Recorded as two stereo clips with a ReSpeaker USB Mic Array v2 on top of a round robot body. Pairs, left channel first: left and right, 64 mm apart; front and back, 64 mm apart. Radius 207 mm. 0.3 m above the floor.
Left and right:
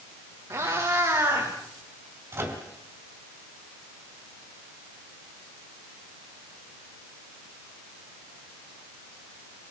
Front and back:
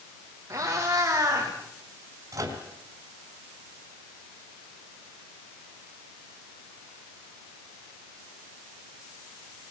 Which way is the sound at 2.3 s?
145° right.